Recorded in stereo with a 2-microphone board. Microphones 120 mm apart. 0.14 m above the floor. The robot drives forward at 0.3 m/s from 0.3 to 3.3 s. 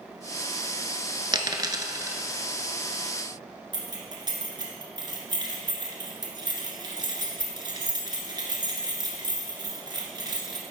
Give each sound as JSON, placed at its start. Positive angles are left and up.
{"t": 1.3, "sound": "a dropped coin", "side_deg": -40, "distance_m": 0.6}
{"t": 3.7, "sound": "keys jangling", "side_deg": -35, "distance_m": 1.4}